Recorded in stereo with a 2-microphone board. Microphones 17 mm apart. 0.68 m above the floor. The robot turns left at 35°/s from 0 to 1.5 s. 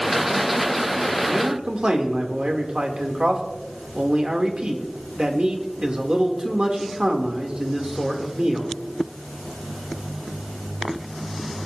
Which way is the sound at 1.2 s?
55° right (ahead or behind).